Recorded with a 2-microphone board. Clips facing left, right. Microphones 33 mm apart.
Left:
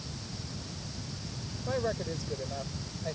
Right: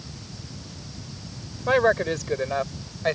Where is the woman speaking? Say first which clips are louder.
Right 13 dB; 65° right (ahead or behind); by 3.2 s 70° right (ahead or behind).